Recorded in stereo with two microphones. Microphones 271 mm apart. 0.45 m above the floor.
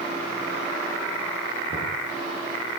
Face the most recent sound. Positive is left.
turn(degrees=-40)  # may be behind; listen again after turning